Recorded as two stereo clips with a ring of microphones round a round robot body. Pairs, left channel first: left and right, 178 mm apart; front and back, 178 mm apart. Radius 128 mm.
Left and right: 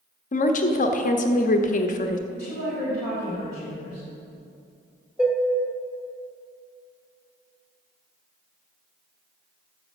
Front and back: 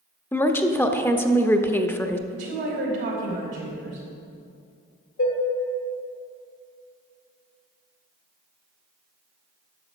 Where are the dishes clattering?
Straight ahead, 2.5 m.